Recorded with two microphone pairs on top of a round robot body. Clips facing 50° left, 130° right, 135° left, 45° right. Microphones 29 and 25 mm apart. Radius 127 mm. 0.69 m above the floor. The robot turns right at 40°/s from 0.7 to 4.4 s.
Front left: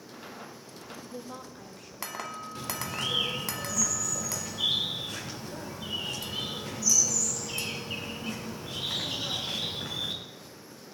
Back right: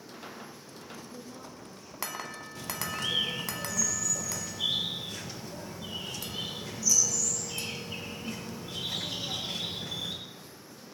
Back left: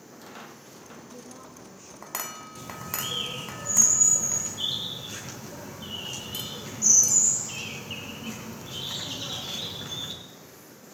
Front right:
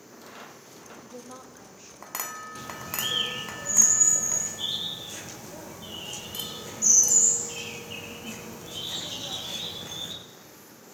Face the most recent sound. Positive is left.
turn(degrees=75)